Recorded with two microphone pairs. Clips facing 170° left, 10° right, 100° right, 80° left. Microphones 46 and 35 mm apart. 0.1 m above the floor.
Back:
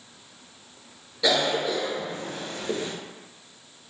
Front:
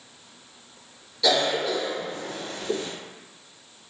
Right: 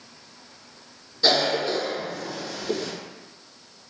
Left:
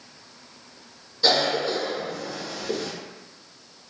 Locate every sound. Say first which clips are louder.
1.2 s a cough: front 1 dB, even; straight behind, 1.2 m